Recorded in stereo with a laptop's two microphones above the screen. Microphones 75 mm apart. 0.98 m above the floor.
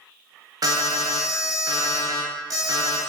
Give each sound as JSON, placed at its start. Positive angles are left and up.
{"t": 0.6, "sound": "an alarm", "side_deg": -60, "distance_m": 0.5}